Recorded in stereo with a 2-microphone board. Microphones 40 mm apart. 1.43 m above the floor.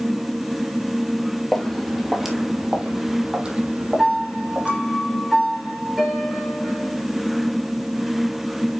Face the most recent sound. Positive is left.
turn(degrees=-10)  # may be behind; listen again after turning